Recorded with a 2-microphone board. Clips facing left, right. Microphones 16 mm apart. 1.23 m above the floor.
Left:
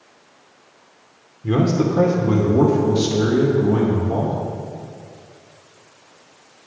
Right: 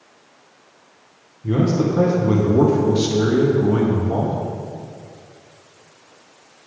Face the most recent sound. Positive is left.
turn(degrees=-60)  # may be behind; listen again after turning